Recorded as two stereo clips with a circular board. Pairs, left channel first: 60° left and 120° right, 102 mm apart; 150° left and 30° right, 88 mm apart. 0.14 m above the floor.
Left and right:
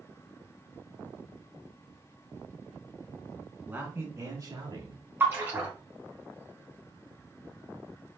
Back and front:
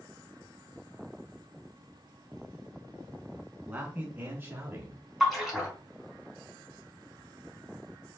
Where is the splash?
115° right, 1.7 m.